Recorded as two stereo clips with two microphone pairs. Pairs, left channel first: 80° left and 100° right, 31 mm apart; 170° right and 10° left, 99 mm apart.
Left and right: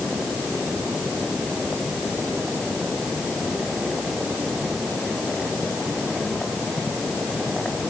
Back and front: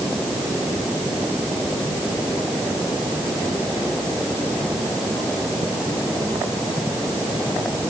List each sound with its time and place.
Only background noise.